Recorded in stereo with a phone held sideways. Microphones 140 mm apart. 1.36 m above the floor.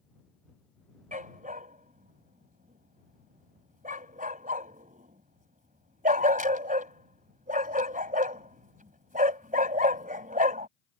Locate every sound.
1.1 s a dog barking: 70° right (ahead or behind)